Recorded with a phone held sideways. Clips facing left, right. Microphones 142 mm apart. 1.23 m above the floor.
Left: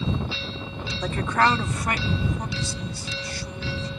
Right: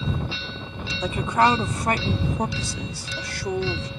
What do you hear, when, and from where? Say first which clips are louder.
1.0 s a woman speaking: right 2 dB; 10° right (ahead or behind); by 3.9 s 85° right